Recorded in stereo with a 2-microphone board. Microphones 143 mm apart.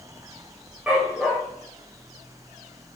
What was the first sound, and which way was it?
A dog barking, 5° right (ahead or behind).